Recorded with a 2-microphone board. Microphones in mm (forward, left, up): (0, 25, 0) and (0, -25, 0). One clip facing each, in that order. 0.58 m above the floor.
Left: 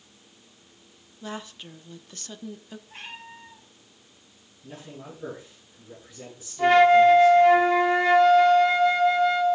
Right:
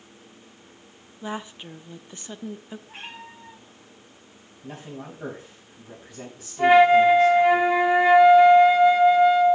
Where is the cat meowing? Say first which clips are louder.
Right 1 dB; 40° right (ahead or behind), 5 m.